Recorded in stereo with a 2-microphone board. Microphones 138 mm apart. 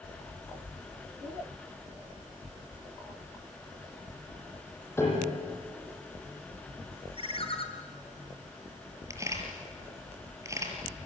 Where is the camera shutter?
20° right (ahead or behind), 5.5 m.